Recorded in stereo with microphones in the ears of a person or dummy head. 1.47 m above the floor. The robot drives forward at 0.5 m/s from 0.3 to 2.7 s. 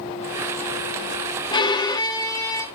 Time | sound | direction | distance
1.5 | a violin | 20° left (ahead or behind) | 0.8 m